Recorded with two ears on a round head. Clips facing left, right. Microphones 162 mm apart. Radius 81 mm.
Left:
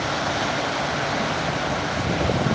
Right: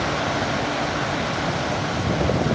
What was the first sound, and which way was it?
Only background noise.